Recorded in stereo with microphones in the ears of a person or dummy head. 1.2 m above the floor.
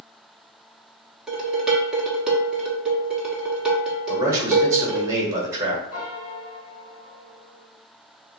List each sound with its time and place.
1.3 s dishes clattering: centre (ahead or behind), 1.2 m
4.1 s a man speaking: 15° right (ahead or behind), 1.5 m
5.9 s a piano: 65° left (ahead or behind), 1.5 m